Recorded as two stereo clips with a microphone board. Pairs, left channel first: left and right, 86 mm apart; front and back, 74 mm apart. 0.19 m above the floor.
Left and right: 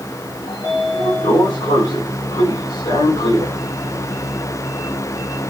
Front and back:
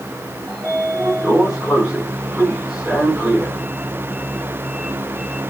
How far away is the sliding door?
About 8.5 m.